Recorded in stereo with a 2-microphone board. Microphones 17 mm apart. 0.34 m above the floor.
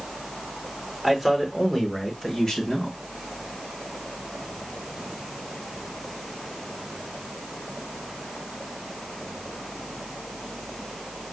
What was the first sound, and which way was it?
A man speaking, centre (ahead or behind).